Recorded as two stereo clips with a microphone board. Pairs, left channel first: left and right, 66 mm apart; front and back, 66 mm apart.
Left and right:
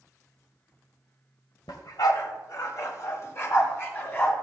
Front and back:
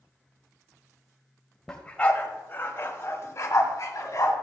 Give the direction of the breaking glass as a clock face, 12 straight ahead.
No breaking glass in this recording.